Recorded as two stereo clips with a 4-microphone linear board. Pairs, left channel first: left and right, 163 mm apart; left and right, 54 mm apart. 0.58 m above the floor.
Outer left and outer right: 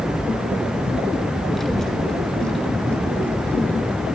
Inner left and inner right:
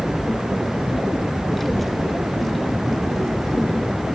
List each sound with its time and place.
1.6 s a child speaking: centre (ahead or behind), 1.6 m; by 4.1 s 10° left (ahead or behind), 3 m